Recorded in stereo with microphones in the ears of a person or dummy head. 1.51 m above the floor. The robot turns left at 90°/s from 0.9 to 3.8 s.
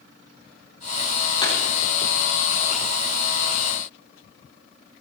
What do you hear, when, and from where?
1.4 s a pop: 30° left (ahead or behind), 3.5 m; by 1.6 s 40° left (ahead or behind), 3.5 m